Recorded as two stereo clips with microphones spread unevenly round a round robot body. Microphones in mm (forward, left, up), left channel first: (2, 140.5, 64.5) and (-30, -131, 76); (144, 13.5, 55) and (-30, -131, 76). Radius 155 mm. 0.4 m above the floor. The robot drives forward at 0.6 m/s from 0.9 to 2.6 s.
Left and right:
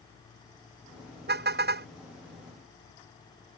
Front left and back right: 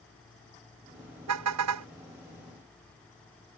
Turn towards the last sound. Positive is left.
turn(degrees=-155)